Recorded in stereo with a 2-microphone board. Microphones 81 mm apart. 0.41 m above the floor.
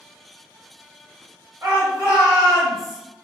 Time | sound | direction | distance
1.6 | a shout | 25° right (ahead or behind) | 1.3 m